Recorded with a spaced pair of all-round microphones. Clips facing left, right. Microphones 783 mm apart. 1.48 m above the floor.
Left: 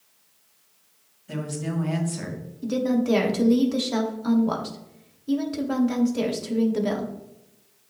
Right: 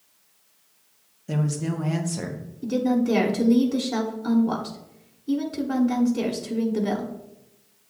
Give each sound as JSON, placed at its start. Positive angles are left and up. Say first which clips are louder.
{"t": 1.3, "sound": "a woman speaking", "louder": "right 3 dB", "side_deg": -70, "distance_m": 1.2}
{"t": 2.6, "sound": "a woman speaking", "louder": "right 1 dB", "side_deg": 15, "distance_m": 1.0}